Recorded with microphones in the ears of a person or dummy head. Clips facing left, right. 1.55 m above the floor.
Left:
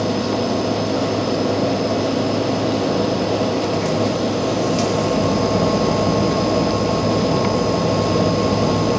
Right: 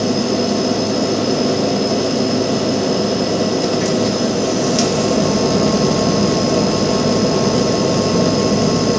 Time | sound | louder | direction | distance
0.0 | a machine running | right 3 dB | 15° right (ahead or behind) | 2 m